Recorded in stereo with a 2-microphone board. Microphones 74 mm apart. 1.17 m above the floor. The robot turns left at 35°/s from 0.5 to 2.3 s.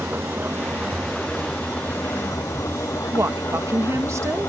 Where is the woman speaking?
40° right (ahead or behind).